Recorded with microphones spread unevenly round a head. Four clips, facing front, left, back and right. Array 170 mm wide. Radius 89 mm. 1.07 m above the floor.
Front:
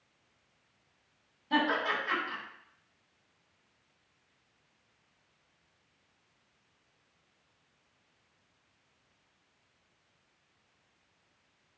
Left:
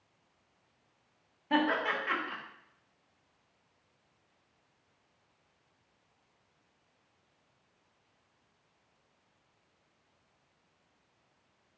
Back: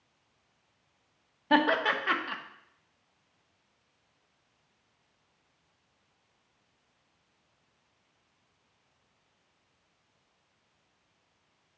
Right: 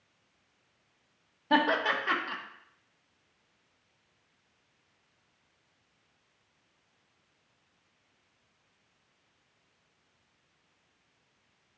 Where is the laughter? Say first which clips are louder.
Right 3 dB, back 4 dB; 145° right, 1.1 m.